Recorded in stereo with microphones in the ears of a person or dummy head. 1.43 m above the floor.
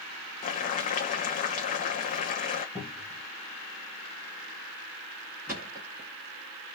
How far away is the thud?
About 1.8 m.